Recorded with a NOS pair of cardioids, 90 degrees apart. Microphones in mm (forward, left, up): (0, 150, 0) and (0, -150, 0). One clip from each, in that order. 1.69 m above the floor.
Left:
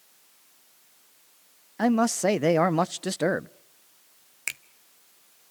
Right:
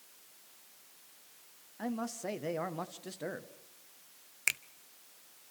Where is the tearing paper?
No tearing paper in this recording.